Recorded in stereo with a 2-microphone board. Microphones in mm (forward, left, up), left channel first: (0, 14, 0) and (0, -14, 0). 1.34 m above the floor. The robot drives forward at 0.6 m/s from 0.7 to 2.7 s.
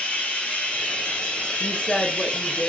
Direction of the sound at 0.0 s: 75° left (ahead or behind).